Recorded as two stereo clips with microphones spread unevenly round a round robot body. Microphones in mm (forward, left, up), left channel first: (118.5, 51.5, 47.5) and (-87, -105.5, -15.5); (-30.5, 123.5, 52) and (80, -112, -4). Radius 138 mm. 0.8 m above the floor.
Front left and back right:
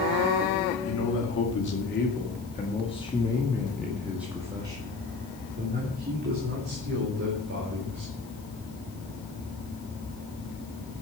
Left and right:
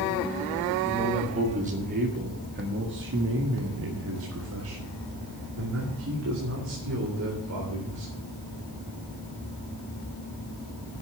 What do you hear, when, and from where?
0.8 s a man speaking: straight ahead, 2.5 m; by 8.1 s 110° right, 3.5 m